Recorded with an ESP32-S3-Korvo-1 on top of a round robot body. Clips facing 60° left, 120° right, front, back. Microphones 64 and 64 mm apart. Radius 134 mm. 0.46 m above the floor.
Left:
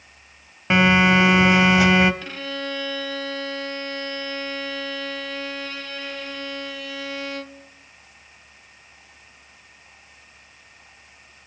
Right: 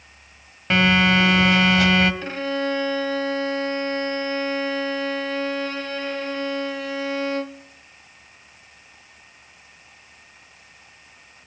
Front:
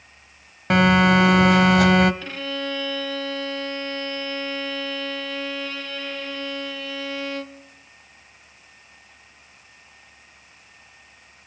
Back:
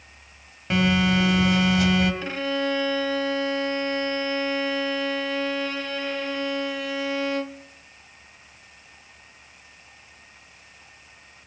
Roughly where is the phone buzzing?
Ahead.